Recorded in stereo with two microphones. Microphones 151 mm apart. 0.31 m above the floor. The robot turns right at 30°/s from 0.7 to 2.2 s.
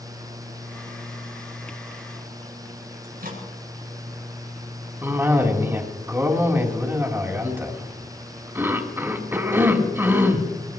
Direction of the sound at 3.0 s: 75° right (ahead or behind).